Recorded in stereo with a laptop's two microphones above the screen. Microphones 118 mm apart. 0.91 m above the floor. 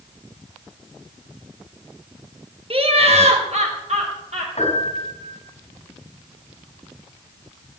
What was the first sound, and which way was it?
Laughter, 50° right (ahead or behind).